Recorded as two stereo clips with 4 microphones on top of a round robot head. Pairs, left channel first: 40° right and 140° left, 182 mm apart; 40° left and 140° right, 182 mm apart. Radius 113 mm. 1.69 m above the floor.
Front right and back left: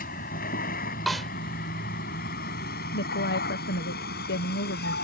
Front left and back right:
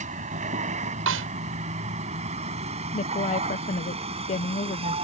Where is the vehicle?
90° right; by 5.0 s 80° right.